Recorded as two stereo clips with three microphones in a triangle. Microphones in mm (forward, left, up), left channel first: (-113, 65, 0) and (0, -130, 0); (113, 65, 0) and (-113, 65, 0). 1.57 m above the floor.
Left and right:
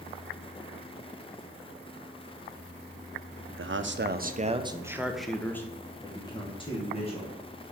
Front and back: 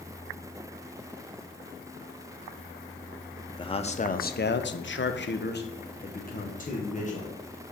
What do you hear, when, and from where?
3.6 s a man speaking: 65° right, 0.6 m; by 7.4 s 60° left, 1.6 m